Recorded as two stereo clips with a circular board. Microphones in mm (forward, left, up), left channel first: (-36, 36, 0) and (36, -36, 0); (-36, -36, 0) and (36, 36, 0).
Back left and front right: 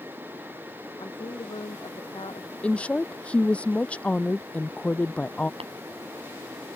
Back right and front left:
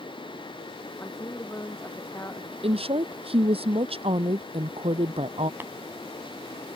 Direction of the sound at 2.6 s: 60° left.